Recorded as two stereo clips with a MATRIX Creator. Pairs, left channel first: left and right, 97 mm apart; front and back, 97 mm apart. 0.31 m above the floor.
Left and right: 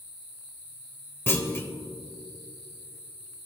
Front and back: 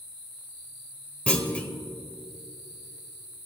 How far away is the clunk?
About 0.8 m.